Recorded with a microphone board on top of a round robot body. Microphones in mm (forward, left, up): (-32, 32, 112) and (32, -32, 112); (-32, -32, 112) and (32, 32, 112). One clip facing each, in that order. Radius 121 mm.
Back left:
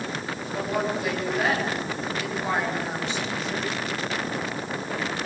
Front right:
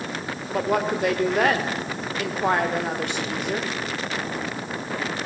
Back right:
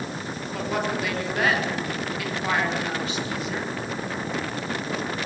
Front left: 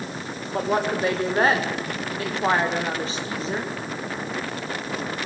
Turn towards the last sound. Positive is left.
turn(degrees=-15)